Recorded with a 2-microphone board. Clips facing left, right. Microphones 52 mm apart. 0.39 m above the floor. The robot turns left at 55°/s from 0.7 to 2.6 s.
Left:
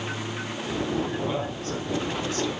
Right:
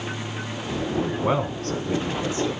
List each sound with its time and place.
1.0 s a man speaking: 80° right, 4 m; by 2.6 s 170° right, 4 m